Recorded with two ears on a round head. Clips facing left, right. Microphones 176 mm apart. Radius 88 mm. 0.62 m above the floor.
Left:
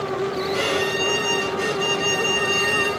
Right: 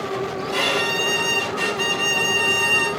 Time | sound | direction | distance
0.5 | a violin | 75° right (ahead or behind) | 5 m